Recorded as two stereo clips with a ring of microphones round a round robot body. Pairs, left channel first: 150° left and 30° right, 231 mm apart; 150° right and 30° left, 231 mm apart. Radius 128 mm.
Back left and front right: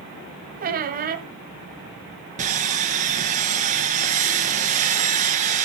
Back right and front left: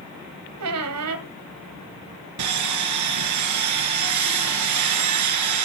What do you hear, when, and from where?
0.6 s a squeak: 25° left, 1.7 m
2.4 s sawing: 30° left, 2.5 m